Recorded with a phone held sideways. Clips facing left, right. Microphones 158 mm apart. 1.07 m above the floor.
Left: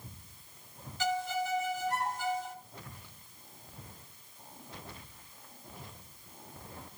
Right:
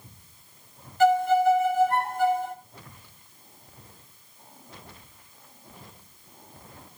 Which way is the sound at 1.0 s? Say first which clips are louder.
Right 14 dB; 65° right (ahead or behind).